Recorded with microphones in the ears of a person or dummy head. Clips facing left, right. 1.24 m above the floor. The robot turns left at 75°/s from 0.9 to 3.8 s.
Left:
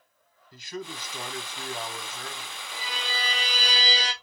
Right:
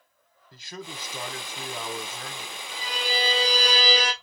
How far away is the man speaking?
About 1.1 m.